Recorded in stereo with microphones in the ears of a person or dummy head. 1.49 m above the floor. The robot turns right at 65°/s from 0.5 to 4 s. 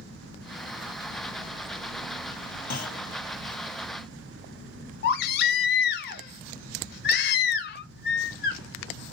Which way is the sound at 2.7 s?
50° left (ahead or behind).